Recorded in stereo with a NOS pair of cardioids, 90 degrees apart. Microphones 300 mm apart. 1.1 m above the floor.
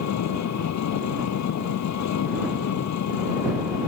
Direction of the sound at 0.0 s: 65° left.